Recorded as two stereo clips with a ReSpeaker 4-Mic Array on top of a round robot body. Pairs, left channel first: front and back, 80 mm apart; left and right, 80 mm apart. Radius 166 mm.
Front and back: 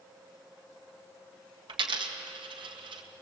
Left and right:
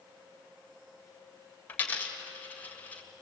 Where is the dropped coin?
160° left, 1.6 m.